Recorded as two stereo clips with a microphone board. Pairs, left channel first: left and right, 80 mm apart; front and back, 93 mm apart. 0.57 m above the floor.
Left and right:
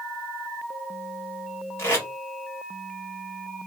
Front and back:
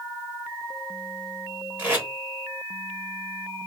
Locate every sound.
1.8 s tape being pulled: 125° left, 1.4 m